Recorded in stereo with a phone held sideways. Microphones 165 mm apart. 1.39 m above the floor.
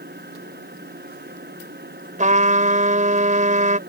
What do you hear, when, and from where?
0.0 s a machine running: 80° right
2.2 s a trumpet: 50° right (ahead or behind)